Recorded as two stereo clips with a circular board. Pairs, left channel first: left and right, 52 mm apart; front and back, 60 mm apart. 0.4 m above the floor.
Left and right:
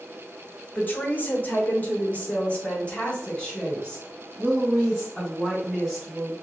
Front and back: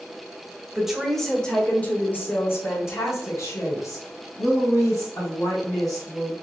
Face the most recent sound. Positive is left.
turn(degrees=10)